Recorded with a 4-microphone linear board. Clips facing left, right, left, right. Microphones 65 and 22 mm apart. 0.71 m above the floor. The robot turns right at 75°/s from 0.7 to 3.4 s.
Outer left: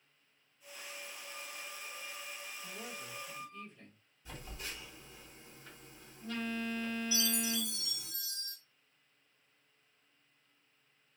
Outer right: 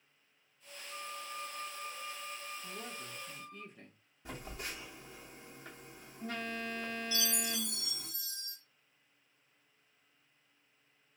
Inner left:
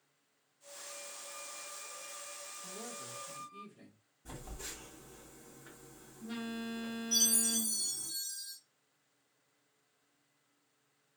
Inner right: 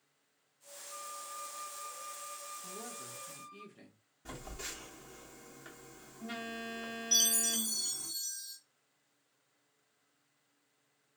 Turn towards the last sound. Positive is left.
turn(degrees=-60)  # may be behind; listen again after turning